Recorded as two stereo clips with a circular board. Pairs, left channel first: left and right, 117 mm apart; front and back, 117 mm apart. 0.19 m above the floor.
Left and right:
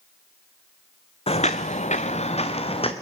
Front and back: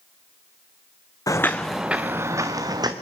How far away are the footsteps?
About 0.8 m.